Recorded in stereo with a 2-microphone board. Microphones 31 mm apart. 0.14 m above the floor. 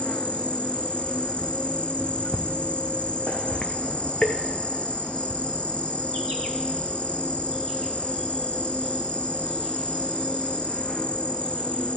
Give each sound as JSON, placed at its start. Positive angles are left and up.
{"t": 0.0, "sound": "an insect", "side_deg": 40, "distance_m": 1.2}